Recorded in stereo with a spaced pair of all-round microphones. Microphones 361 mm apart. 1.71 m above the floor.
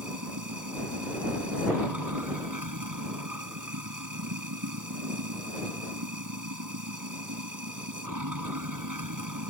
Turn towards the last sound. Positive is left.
turn(degrees=-60)  # may be behind; listen again after turning